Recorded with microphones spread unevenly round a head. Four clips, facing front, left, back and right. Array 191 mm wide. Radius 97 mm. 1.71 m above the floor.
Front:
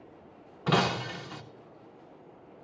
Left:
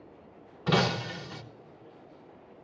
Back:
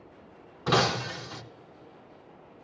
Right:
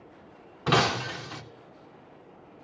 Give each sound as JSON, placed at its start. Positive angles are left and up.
{"t": 0.7, "sound": "breaking glass", "azimuth_deg": -105, "distance_m": 0.8}